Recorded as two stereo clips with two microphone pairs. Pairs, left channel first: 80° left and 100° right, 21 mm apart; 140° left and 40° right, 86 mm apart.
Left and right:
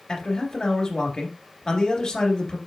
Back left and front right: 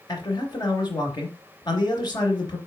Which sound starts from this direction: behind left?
A man speaking, at 0.1 s.